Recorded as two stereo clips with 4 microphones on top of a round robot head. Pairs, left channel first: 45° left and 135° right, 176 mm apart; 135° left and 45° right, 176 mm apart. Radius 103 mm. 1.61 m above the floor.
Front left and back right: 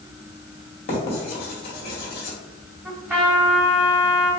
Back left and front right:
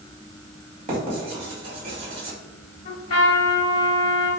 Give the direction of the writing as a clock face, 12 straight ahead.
12 o'clock.